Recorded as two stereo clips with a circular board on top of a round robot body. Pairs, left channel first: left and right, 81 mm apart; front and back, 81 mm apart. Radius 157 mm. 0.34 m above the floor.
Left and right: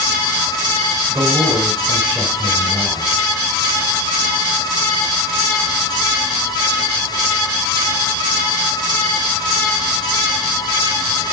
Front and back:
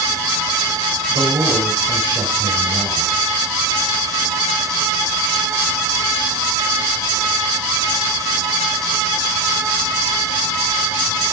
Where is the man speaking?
150° right, 5 m.